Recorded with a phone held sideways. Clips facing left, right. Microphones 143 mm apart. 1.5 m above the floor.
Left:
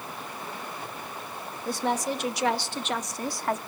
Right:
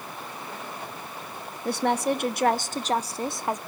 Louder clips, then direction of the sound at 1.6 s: Right 4 dB; 70° right (ahead or behind).